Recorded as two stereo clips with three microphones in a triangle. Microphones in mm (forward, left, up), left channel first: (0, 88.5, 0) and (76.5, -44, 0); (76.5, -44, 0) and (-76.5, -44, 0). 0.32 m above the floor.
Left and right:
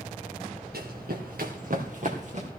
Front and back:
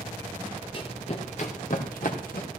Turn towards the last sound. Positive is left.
turn(degrees=-20)